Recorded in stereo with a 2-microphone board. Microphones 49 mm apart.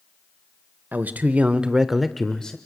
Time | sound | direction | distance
0.9 | a man speaking | 40° right (ahead or behind) | 1.1 m